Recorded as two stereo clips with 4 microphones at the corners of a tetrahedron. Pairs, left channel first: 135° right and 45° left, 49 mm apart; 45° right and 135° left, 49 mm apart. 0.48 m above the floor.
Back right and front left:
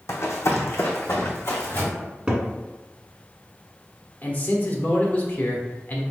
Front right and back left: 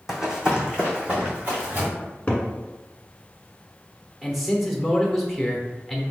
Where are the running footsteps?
145° right, 1.0 m; by 1.9 s 165° right, 1.9 m.